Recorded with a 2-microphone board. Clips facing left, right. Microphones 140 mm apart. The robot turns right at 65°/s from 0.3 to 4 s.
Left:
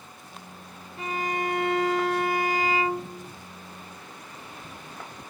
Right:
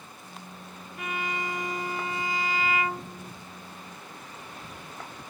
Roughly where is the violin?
Ahead left.